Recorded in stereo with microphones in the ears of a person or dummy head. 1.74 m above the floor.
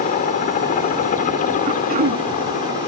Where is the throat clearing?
30° right (ahead or behind).